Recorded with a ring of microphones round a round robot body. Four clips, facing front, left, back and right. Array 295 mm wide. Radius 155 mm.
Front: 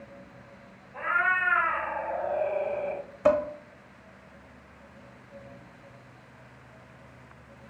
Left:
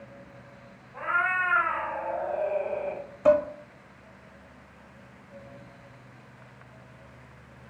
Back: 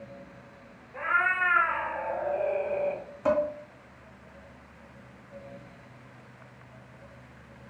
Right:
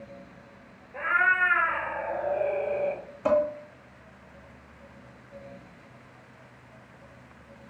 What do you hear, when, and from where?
0.9 s a cat meowing: 105° right, 1.2 m
3.2 s dishes clattering: straight ahead, 0.7 m